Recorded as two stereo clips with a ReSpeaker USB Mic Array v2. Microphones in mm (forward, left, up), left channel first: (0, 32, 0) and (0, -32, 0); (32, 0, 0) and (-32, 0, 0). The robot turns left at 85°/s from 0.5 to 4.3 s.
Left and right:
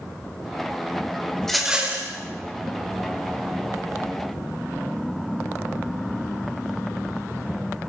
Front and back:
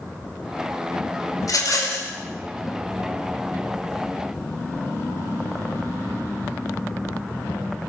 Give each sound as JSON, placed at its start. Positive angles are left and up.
{"t": 1.4, "sound": "a rattle", "azimuth_deg": 10, "distance_m": 2.5}